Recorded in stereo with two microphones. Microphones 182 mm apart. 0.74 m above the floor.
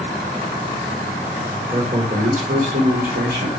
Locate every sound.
1.7 s a man speaking: 35° right (ahead or behind), 2 m; by 3.5 s 70° right (ahead or behind), 2 m